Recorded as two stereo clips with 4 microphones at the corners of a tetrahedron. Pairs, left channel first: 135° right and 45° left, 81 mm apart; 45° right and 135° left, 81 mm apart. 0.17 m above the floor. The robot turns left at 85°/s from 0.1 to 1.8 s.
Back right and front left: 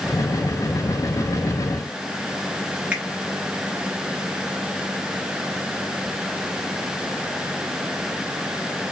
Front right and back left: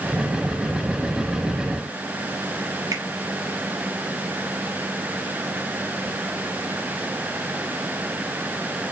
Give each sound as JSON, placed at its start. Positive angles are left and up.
{"t": 2.9, "sound": "a finger snap", "azimuth_deg": 115, "distance_m": 2.5}